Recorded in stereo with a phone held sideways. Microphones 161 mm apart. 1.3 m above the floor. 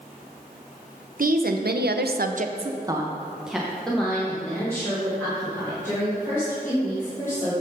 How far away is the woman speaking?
About 0.8 m.